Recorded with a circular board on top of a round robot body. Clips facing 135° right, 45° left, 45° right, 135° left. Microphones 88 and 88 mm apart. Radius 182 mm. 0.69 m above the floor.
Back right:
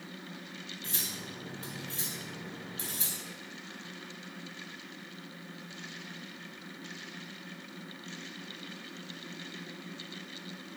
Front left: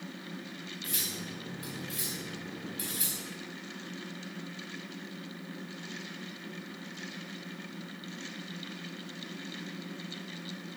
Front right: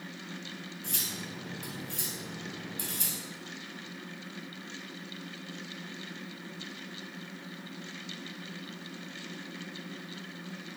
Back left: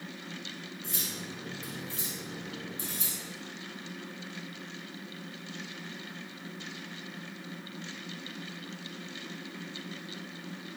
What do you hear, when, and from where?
0.8 s cutlery clinking: 70° right, 3.5 m